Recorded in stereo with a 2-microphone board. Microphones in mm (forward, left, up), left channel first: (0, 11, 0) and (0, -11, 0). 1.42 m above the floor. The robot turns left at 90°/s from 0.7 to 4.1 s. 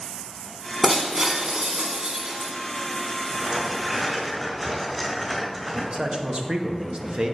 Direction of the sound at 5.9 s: 50° right (ahead or behind).